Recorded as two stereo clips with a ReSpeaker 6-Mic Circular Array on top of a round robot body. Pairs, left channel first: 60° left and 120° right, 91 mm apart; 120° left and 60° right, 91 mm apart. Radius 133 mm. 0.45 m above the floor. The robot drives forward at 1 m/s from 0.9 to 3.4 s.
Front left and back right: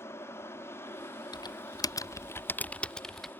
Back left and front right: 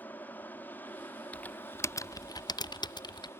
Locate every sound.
0.0 s an aircraft: 75° left; by 3.4 s 100° left
1.3 s typing on a keyboard: 50° left; by 3.3 s 150° left